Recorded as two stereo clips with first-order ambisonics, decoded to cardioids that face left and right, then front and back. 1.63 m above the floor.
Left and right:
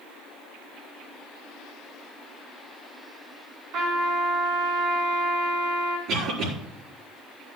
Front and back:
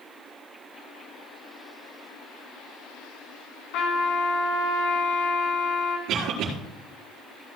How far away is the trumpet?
About 4 m.